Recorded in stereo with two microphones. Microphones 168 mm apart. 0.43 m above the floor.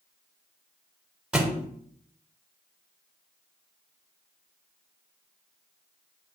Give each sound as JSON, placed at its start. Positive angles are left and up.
{"t": 1.3, "sound": "a thud", "side_deg": -5, "distance_m": 0.6}